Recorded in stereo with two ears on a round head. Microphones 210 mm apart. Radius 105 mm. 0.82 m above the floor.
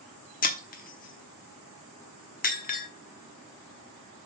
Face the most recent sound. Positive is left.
turn(degrees=35)  # may be behind; listen again after turning